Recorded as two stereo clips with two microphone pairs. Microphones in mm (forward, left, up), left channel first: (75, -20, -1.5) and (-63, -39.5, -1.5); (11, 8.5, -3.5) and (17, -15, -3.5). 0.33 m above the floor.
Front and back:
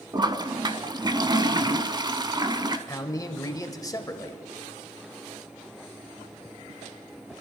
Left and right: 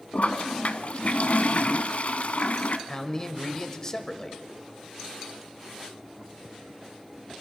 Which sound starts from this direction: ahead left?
A man speaking, at 2.9 s.